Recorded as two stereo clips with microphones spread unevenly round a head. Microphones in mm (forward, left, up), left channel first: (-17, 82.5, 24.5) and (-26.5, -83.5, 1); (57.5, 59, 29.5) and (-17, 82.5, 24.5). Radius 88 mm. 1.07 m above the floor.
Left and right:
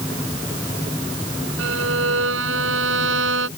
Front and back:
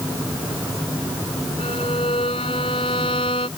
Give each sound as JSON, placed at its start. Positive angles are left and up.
{"t": 1.6, "sound": "a violin", "azimuth_deg": -70}